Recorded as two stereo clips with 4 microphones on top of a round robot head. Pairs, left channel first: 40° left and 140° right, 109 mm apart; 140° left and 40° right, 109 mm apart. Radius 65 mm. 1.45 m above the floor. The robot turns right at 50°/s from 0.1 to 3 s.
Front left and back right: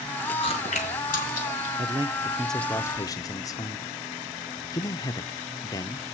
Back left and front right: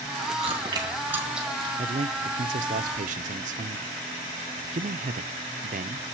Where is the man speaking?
80° right, 0.7 m; by 6.1 s 20° right, 0.7 m.